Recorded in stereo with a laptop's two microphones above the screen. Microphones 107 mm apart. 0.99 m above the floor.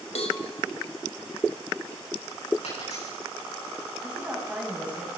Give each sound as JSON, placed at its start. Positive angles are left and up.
{"t": 0.1, "sound": "a cowbell", "side_deg": 70, "distance_m": 2.0}
{"t": 2.6, "sound": "a dropped coin", "side_deg": 85, "distance_m": 7.5}
{"t": 4.0, "sound": "a woman speaking", "side_deg": -10, "distance_m": 7.5}